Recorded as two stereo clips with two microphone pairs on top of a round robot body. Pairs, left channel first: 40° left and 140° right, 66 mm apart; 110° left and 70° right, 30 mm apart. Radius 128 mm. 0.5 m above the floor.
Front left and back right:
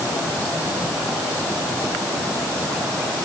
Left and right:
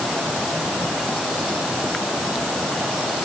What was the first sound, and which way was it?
Only background noise.